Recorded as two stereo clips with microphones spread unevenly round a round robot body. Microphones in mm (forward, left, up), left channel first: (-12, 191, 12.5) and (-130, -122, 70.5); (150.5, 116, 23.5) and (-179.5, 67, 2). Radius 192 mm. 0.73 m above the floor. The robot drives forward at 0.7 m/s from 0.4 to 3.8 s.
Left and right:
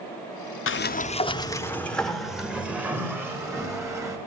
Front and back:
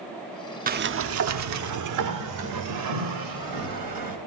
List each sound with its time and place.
0.7 s a sliding door: 120° left, 0.7 m; by 4.2 s 165° left, 2.5 m